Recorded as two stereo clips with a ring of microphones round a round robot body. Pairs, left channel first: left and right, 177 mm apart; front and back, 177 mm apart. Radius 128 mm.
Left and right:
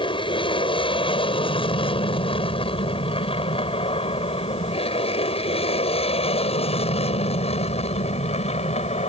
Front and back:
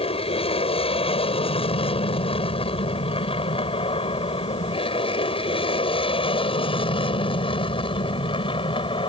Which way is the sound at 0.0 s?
40° left.